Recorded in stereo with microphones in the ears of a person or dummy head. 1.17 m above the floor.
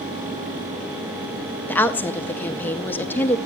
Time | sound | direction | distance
1.7 | a woman speaking | 10° left (ahead or behind) | 0.7 m